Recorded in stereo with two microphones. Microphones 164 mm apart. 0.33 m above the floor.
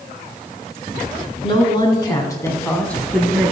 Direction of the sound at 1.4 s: 35° left (ahead or behind).